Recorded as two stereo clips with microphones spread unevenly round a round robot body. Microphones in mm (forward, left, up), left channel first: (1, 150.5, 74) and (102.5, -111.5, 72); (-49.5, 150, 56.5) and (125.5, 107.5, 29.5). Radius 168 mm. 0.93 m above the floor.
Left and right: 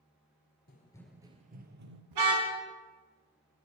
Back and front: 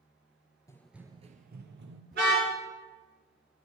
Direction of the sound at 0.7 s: 135° left.